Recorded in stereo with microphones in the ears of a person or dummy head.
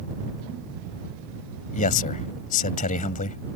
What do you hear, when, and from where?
1.7 s a man speaking: 45° left (ahead or behind)